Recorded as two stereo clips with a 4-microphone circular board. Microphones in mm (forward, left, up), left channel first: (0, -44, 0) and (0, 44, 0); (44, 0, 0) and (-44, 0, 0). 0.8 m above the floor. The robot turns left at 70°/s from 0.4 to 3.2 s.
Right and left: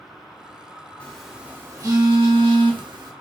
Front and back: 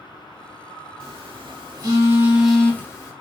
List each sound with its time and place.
1.0 s a phone buzzing: 165° right, 1.3 m; by 3.1 s 50° left, 1.3 m